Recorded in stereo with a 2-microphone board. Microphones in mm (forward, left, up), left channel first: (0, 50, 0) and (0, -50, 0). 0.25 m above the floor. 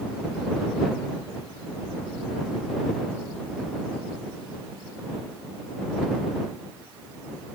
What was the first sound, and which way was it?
Only background noise.